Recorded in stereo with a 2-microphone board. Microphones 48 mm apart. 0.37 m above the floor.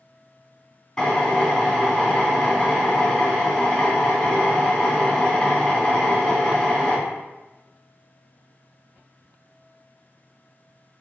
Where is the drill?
15° left (ahead or behind), 3 m.